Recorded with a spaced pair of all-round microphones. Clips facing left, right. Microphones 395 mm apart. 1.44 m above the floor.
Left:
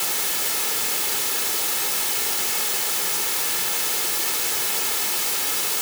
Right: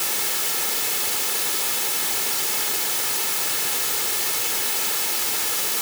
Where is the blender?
No blender in this recording.